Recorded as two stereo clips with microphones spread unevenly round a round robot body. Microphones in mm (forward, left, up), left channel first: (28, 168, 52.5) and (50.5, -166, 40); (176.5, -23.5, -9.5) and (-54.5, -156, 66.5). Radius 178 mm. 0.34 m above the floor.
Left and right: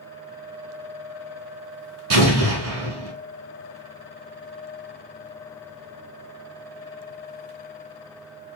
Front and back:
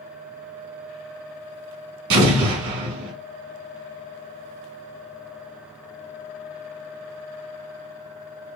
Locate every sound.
2.1 s an explosion: 135° right, 1.1 m